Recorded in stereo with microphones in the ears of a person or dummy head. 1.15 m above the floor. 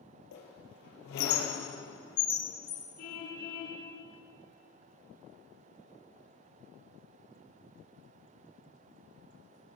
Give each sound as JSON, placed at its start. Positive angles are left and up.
{"t": 0.3, "sound": "a squeak", "side_deg": 65, "distance_m": 3.0}
{"t": 3.0, "sound": "a car horn", "side_deg": 60, "distance_m": 7.0}